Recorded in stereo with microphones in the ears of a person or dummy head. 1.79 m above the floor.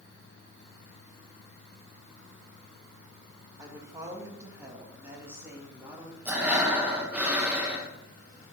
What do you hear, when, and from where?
3.6 s a woman speaking: 20° right (ahead or behind), 2.5 m; by 6.2 s 15° right (ahead or behind), 3.5 m
6.2 s breathing: 15° right (ahead or behind), 1.6 m